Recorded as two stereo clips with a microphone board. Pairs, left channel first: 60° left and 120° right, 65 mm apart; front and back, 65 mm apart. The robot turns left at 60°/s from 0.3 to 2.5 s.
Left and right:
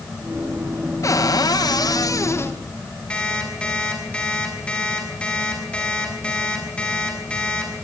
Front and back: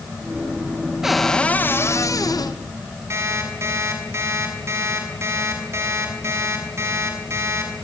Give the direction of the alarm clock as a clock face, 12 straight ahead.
8 o'clock.